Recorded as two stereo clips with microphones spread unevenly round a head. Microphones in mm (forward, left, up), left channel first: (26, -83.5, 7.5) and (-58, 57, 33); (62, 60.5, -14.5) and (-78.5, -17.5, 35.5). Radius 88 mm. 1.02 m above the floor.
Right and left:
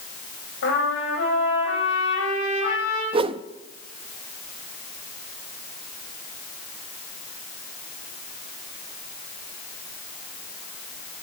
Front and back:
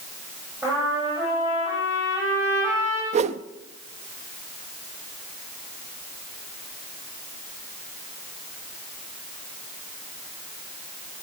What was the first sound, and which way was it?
A trumpet, 75° right.